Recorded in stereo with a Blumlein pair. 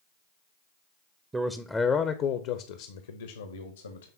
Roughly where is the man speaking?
Ahead.